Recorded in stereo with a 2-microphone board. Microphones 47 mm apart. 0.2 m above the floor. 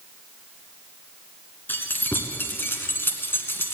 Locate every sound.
1.7 s keys jangling: 45° left (ahead or behind), 1.8 m; by 3.8 s 55° left (ahead or behind), 1.6 m